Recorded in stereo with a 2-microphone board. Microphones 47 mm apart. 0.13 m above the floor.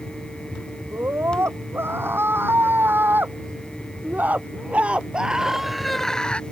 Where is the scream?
55° right (ahead or behind); by 6.4 s 25° left (ahead or behind).